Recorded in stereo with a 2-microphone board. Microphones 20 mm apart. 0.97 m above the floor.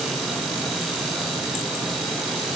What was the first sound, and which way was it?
Only background noise.